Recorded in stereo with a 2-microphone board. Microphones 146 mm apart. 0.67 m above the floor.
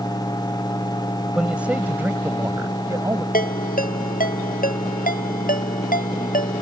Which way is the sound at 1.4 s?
5° right (ahead or behind).